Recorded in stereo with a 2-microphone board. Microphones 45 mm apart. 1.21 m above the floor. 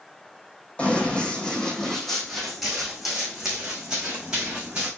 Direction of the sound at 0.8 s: 25° left (ahead or behind).